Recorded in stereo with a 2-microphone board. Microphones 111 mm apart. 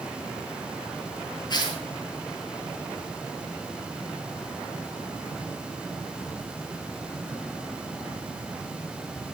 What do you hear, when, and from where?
1.5 s tearing paper: 40° left (ahead or behind), 7.5 m